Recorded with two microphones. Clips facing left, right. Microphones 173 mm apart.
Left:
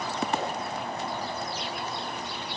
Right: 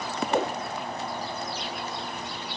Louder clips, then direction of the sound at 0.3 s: Right 7 dB; 65° right (ahead or behind).